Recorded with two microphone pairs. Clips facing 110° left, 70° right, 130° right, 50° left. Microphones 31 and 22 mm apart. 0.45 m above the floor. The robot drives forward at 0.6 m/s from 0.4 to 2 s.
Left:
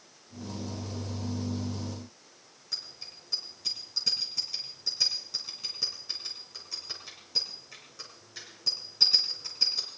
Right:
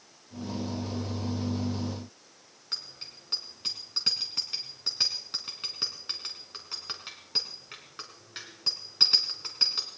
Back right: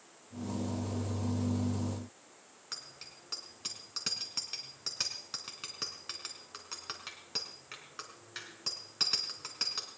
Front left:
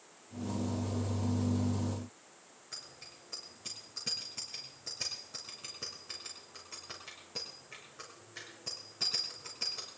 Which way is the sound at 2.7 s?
105° right.